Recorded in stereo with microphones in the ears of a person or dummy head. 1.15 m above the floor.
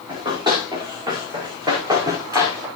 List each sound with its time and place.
0.1 s running footsteps: 25° right (ahead or behind), 6.5 m; by 2.7 s 20° right (ahead or behind), 5 m